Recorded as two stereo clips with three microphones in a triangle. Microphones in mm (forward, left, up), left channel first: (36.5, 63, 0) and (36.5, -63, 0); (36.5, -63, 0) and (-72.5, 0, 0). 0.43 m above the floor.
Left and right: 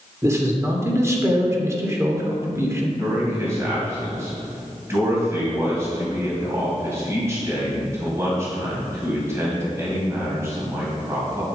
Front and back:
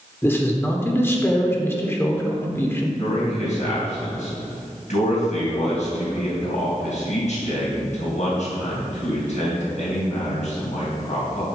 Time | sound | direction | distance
0.2 | a man speaking | 70° right | 1.1 m
3.0 | a man speaking | 25° right | 3 m